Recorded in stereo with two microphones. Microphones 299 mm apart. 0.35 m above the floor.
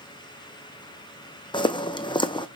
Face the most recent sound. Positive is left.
turn(degrees=15)  # may be behind; listen again after turning